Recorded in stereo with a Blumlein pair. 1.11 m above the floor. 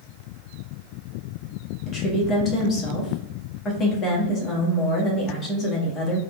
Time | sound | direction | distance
1.9 | a woman speaking | 25° left | 1.6 m